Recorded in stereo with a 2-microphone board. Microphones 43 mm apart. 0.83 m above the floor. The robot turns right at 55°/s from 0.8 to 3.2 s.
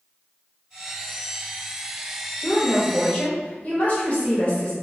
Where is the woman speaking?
80° left, 1.2 m; by 4.7 s 120° left, 1.2 m.